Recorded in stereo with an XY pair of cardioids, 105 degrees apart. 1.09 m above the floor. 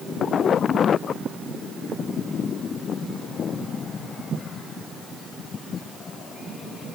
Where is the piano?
No piano in this recording.